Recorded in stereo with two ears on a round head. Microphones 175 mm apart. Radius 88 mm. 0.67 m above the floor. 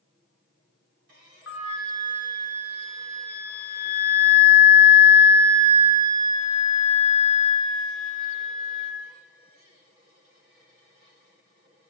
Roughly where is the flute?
Left.